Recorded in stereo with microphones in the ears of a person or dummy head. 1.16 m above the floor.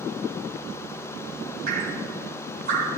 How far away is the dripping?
About 3 m.